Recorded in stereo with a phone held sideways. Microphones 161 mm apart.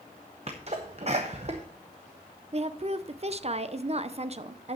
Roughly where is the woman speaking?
Right.